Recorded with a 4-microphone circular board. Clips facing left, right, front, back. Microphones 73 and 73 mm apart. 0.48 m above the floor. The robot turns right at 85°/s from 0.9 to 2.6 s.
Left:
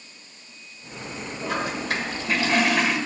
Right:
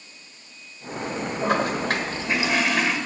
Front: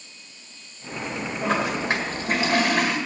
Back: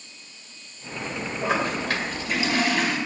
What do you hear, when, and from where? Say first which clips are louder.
1.4 s a toilet flushing: right 5 dB, front 1 dB; 105° right, 1.6 m; by 3.0 s straight ahead, 1.6 m